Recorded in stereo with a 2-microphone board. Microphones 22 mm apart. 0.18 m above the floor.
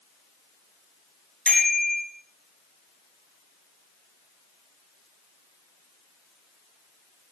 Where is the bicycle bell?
75° left (ahead or behind), 7.5 m.